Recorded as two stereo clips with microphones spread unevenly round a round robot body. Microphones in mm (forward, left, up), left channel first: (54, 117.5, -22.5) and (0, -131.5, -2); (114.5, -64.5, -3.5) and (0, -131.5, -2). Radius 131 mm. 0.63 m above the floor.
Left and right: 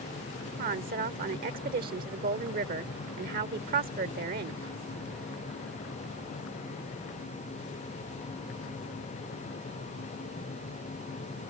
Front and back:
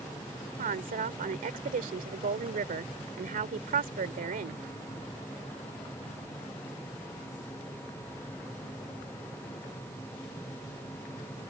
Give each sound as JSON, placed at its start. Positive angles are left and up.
{"t": 0.6, "sound": "a woman speaking", "azimuth_deg": -160}